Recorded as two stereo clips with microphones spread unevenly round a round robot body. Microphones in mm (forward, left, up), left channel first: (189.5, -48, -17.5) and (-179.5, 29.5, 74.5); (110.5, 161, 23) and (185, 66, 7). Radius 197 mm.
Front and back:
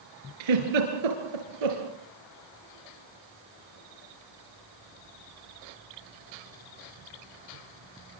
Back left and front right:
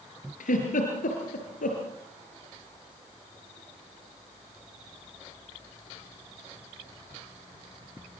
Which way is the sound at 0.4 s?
155° left.